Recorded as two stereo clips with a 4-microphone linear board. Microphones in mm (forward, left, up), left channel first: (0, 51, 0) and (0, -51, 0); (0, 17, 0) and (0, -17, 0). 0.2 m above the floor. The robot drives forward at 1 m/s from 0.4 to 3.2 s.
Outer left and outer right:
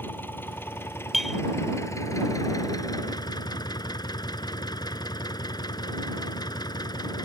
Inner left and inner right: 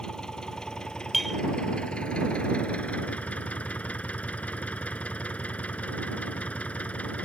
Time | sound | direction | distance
0.0 | an engine running | 20° left (ahead or behind) | ?
1.1 | a clink | centre (ahead or behind) | ?